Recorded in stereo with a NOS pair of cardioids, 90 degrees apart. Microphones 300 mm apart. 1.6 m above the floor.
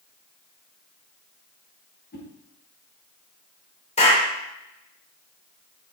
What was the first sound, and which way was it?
A whoosh, 35° left.